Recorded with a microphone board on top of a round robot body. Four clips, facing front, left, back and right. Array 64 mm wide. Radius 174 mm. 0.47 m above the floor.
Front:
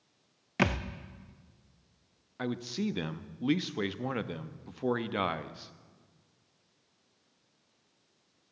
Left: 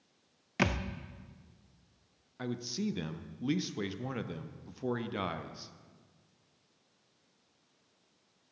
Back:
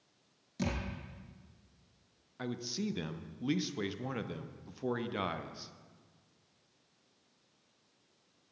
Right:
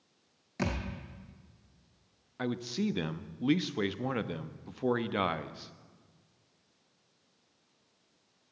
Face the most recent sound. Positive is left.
turn(degrees=-45)